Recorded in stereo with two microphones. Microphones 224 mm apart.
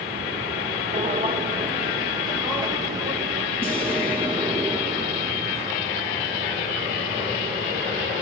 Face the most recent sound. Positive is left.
turn(degrees=-30)  # may be behind; listen again after turning